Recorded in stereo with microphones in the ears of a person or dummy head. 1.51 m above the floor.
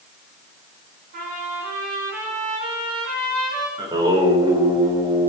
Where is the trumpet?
45° right (ahead or behind), 9 m.